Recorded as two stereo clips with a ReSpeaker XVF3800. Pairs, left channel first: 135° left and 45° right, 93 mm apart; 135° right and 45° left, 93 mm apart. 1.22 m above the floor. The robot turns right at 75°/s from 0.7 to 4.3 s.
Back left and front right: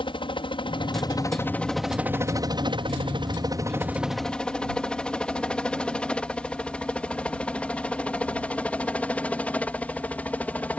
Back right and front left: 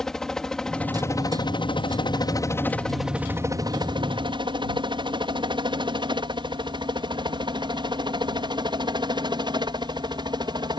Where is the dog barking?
No dog barking in this recording.